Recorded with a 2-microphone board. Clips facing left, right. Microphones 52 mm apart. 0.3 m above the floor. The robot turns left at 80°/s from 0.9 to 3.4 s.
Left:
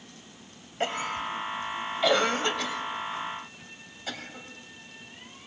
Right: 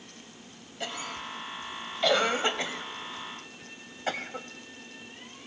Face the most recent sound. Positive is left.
turn(degrees=-40)  # may be behind; listen again after turning